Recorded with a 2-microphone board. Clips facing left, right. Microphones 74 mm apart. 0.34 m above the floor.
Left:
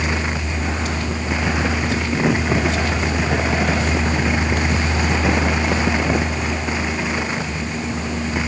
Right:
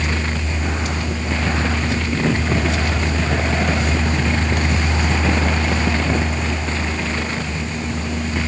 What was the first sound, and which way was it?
Only background noise.